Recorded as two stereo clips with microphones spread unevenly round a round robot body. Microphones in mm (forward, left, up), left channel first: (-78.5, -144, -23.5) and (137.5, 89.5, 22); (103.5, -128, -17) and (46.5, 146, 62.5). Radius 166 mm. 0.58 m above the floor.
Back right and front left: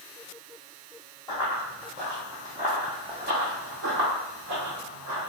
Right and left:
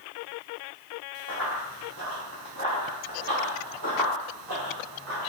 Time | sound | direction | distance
1.3 | running footsteps | 145° left | 1.6 m